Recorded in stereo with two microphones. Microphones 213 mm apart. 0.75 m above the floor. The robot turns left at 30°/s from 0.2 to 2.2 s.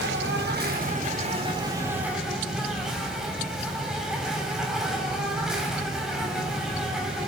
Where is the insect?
115° right, 4.5 m; by 7.3 s 175° right, 4.5 m.